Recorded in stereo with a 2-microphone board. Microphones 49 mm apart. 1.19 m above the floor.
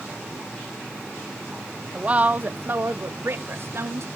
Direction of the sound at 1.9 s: 20° right (ahead or behind).